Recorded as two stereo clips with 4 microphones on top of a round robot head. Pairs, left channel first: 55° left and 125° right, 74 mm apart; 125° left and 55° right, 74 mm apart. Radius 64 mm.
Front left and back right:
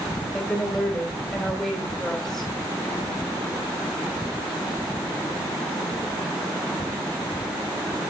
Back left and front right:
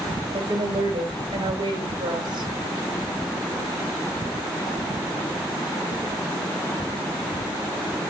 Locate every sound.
0.3 s a woman speaking: 30° right, 4 m